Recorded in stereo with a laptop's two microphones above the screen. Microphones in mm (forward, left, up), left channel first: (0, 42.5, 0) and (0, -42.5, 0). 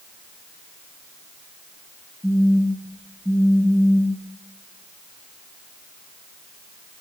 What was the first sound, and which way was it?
A phone buzzing, 5° left (ahead or behind).